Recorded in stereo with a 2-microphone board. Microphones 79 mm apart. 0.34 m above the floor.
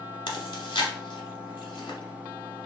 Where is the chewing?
85° left, 0.8 m.